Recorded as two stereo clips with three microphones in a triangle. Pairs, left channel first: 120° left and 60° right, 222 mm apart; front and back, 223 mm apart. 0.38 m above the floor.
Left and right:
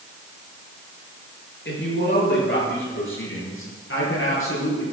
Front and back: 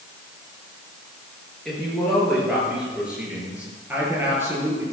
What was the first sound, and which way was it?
A woman speaking, 90° left.